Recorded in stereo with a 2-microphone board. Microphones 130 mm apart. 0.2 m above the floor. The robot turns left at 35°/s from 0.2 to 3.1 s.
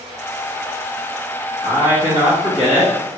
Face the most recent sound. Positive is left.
turn(degrees=45)